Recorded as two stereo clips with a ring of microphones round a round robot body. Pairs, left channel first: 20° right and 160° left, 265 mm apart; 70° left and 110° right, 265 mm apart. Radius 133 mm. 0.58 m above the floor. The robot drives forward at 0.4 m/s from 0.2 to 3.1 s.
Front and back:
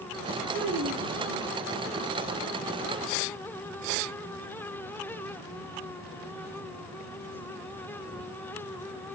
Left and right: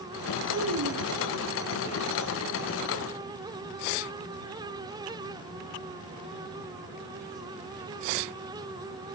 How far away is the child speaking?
About 4.5 m.